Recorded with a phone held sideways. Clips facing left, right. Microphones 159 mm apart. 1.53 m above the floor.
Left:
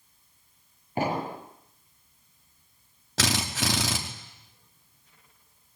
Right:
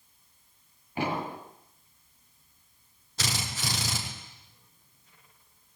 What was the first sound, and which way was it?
An explosion, 45° left (ahead or behind).